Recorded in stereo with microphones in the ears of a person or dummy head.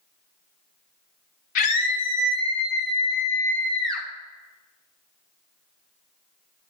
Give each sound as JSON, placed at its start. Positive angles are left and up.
{"t": 1.6, "sound": "a scream", "side_deg": 55, "distance_m": 1.8}